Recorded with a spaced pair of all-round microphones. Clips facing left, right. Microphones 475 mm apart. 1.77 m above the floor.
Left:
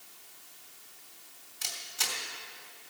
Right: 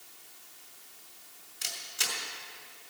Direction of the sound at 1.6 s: 20° left (ahead or behind).